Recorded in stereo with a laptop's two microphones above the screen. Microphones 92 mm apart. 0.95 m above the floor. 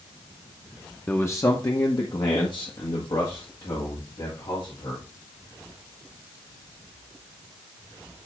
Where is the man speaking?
20° left (ahead or behind), 0.8 m; by 5.0 s 65° left (ahead or behind), 3.5 m.